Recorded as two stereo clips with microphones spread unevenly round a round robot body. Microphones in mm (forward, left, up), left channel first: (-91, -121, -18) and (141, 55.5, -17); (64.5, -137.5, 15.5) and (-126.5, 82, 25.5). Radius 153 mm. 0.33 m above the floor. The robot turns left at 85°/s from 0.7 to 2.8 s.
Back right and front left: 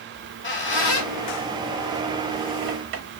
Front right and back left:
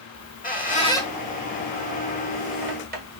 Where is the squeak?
100° right, 1.1 m; by 3.2 s 80° left, 1.1 m.